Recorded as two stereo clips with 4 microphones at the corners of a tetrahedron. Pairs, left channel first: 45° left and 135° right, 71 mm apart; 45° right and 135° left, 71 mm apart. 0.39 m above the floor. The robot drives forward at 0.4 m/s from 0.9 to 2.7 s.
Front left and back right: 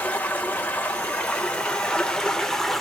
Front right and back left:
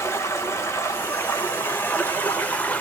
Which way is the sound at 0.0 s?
10° right.